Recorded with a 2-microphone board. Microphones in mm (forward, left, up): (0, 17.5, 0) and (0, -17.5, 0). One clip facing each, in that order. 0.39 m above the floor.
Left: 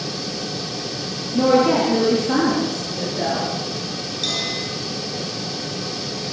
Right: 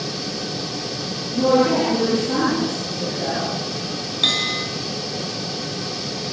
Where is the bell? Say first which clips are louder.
Right 5 dB; 40° right (ahead or behind), 7 m.